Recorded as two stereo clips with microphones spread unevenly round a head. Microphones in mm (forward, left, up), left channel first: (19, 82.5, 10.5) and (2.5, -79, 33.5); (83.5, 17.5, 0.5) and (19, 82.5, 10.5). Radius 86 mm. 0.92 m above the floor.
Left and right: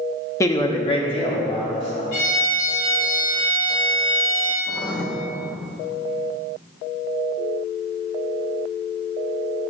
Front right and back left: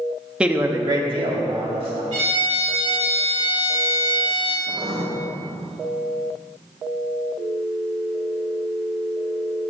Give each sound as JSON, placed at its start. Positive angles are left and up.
{"t": 0.4, "sound": "a man speaking", "azimuth_deg": 50, "distance_m": 1.0}
{"t": 2.1, "sound": "a violin", "azimuth_deg": 130, "distance_m": 2.5}
{"t": 4.7, "sound": "writing", "azimuth_deg": 165, "distance_m": 1.2}